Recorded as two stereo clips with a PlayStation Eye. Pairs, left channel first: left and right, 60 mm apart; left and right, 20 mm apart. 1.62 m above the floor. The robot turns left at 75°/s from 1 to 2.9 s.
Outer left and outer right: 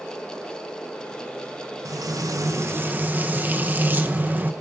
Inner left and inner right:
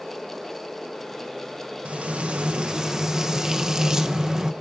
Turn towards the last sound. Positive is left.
turn(degrees=-145)